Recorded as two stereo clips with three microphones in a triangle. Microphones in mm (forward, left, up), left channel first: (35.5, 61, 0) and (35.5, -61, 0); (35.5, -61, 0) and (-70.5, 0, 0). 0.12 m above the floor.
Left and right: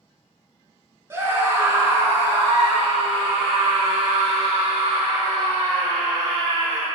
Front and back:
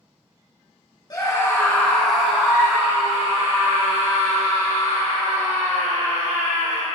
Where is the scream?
40° right, 1.7 m; by 6.8 s 175° right, 5 m.